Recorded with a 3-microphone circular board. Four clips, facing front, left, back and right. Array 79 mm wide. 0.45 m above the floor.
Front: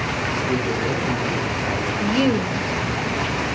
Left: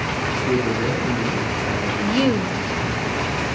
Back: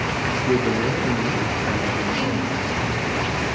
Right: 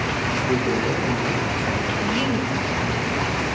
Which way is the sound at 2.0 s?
50° left.